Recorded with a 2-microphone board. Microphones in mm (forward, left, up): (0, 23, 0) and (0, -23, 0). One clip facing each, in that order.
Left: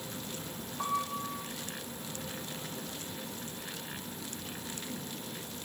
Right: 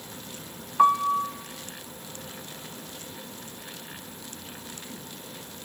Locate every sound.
0.8 s a piano: 60° right (ahead or behind), 0.7 m